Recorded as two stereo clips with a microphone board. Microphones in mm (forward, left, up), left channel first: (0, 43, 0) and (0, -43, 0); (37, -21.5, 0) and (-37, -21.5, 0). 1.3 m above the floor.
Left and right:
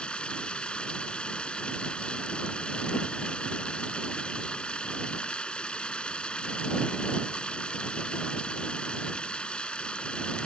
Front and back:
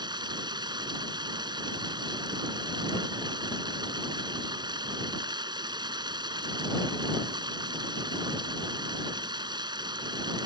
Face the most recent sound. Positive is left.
turn(degrees=170)